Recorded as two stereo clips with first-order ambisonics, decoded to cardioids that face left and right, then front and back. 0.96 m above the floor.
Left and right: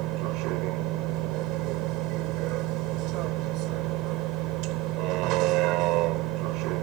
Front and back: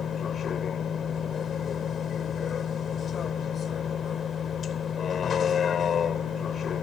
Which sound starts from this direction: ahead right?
A vehicle, at 0.0 s.